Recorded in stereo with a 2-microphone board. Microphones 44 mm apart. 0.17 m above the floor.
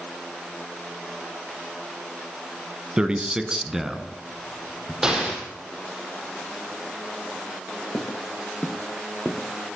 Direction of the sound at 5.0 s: 20° right (ahead or behind).